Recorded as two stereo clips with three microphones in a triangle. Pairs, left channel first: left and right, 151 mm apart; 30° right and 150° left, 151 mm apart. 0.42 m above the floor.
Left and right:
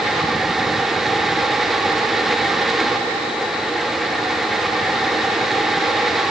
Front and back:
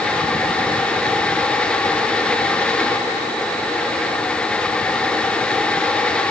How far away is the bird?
I don't hear a bird.